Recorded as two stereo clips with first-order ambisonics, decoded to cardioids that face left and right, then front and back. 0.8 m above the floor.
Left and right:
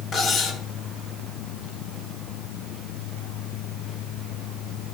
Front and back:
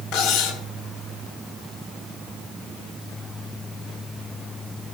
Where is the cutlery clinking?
25° left, 1.7 m.